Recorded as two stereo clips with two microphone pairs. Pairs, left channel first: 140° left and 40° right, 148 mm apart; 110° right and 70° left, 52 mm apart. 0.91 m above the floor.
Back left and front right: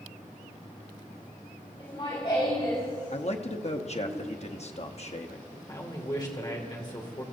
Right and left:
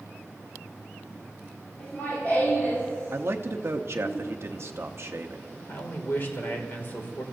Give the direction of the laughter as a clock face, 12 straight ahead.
6 o'clock.